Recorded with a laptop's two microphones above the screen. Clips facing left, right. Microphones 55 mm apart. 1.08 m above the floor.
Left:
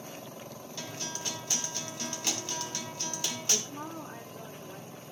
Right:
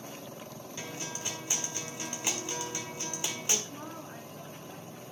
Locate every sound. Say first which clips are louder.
0.8 s a guitar: even; 20° right (ahead or behind), 3 m
3.7 s a woman speaking: left 2 dB; 5° left (ahead or behind), 4 m